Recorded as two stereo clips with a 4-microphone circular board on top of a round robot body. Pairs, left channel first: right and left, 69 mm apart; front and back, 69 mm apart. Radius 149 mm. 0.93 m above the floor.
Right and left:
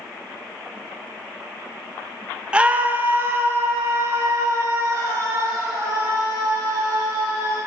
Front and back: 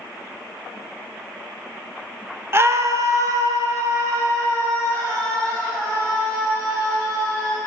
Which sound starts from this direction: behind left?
A scream, at 2.5 s.